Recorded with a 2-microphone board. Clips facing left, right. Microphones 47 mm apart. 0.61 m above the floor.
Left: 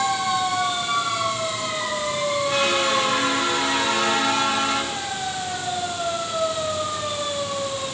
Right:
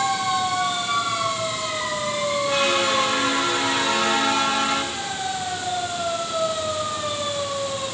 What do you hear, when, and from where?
Only background noise.